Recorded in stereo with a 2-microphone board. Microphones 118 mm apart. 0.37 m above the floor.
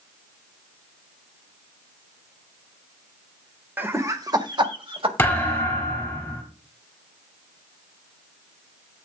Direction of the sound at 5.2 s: 20° left (ahead or behind).